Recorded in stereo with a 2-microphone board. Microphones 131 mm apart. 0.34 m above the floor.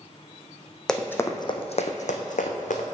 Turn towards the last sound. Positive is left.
turn(degrees=80)